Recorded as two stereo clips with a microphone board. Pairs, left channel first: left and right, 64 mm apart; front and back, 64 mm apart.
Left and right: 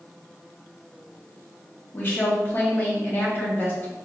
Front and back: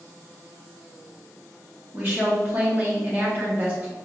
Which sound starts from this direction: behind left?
A woman speaking, at 1.9 s.